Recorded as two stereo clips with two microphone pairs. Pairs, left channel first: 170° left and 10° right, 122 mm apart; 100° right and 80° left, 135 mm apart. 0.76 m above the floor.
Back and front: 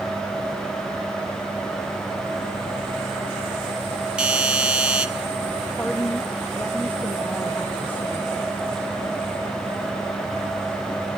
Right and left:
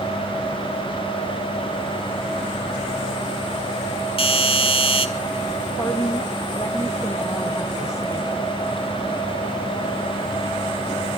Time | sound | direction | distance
4.2 | a doorbell | 90° right | 1.8 m
5.8 | a woman speaking | 135° right | 1.0 m